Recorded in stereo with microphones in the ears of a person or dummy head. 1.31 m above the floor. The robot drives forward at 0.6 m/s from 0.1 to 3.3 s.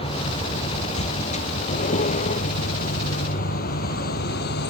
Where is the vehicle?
30° left (ahead or behind); by 4.7 s 60° left (ahead or behind).